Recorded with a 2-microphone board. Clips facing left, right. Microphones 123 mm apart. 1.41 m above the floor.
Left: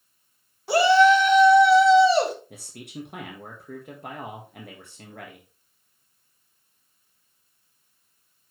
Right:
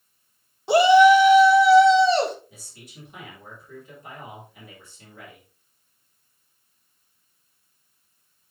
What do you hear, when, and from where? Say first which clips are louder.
0.7 s a shout: right 3 dB; 20° right (ahead or behind), 1.3 m; by 2.4 s 5° left (ahead or behind), 2 m
2.5 s a man speaking: left 9 dB; 65° left (ahead or behind), 1.6 m